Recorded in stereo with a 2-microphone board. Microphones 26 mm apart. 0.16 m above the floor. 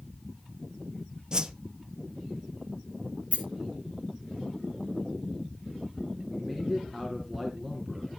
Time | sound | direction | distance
1.3 | a whoosh | 30° right (ahead or behind) | 0.7 m
3.3 | a rattle | 60° right (ahead or behind) | 2 m
6.3 | a man speaking | 5° right (ahead or behind) | 2 m